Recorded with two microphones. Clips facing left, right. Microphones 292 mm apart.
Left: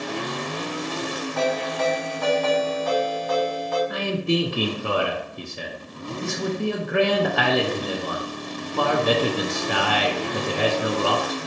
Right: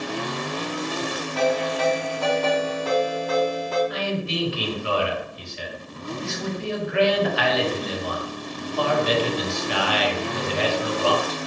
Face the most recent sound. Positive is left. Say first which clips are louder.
# left 4 dB
turn(degrees=55)  # may be behind; listen again after turning